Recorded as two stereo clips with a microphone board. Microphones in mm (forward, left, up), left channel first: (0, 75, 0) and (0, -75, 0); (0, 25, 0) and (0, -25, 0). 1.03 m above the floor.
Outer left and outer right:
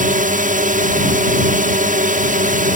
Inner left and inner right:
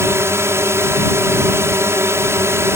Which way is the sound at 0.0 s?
60° right (ahead or behind).